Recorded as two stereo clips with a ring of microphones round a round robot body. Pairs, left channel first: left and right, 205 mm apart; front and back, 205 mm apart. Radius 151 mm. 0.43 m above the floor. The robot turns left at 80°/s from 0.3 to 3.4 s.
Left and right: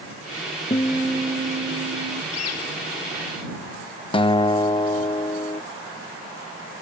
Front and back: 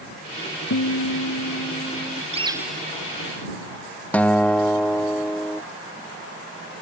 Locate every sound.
0.7 s a guitar: 25° left; by 2.2 s 95° right
2.3 s a bird: 120° left; by 2.9 s 80° left
4.1 s a guitar: 75° left